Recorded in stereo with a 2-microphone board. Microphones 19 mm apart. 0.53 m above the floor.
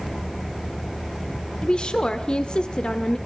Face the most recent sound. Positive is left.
turn(degrees=55)  # may be behind; listen again after turning